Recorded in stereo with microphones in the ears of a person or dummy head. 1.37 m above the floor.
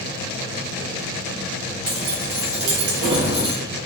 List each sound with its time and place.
1.9 s keys jangling: 50° right (ahead or behind), 1.3 m; by 3.5 s centre (ahead or behind), 0.8 m